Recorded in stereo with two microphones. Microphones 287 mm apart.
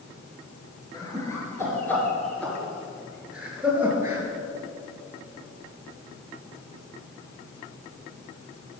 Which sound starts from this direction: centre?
Laughter, at 0.9 s.